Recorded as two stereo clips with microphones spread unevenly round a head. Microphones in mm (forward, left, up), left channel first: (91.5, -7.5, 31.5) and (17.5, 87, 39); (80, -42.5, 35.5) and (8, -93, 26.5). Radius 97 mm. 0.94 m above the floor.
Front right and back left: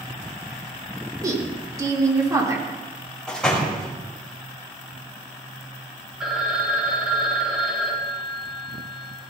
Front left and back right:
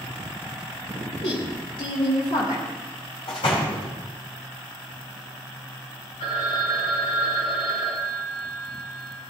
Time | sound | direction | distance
1.2 | a woman speaking | 65° left | 3.5 m
3.3 | a door slam | 30° left | 4 m
6.2 | a phone ringing | 40° left | 3.5 m